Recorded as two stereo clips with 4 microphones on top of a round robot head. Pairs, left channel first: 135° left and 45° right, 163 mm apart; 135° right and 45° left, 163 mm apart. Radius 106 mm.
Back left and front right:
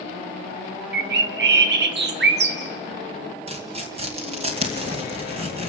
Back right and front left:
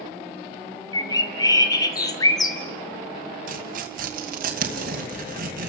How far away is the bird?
About 1.5 m.